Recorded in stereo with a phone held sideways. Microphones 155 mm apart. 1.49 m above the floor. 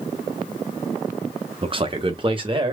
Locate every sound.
1.6 s a man speaking: 35° right (ahead or behind), 1.1 m